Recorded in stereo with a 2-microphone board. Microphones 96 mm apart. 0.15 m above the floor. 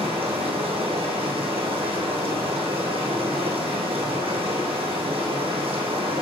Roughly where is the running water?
Right.